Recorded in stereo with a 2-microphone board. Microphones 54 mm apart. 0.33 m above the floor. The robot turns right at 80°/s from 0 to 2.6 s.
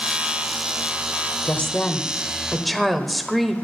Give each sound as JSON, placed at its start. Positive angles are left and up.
{"t": 1.4, "sound": "a woman speaking", "side_deg": 25, "distance_m": 0.9}